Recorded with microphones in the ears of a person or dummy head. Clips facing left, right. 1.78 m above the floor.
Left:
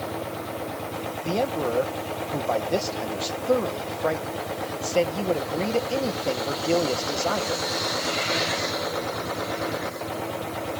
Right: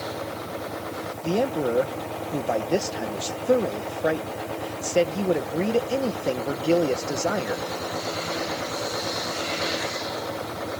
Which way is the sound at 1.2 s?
20° right (ahead or behind).